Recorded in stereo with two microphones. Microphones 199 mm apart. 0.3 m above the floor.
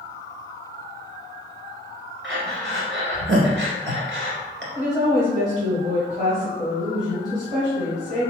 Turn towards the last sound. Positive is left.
turn(degrees=-35)  # may be behind; listen again after turning